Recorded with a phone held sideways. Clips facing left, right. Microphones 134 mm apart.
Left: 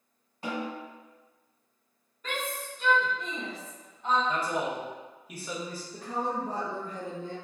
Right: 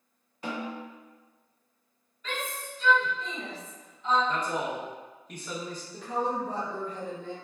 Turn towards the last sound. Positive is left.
turn(degrees=40)  # may be behind; listen again after turning